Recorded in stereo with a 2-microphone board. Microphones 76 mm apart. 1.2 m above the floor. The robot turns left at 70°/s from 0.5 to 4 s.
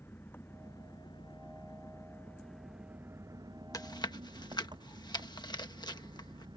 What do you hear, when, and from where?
0.0 s an engine running: 150° left; by 6.6 s 95° right
3.7 s chewing: 55° left (ahead or behind); by 6.6 s 75° left (ahead or behind)